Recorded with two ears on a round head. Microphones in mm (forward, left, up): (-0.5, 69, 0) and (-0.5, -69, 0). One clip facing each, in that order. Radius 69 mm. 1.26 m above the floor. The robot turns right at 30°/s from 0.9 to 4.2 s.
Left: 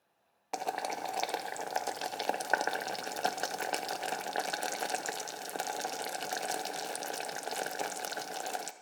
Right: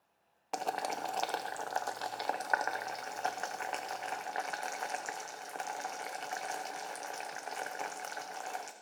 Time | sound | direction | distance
0.5 | boiling | 5° left (ahead or behind) | 0.7 m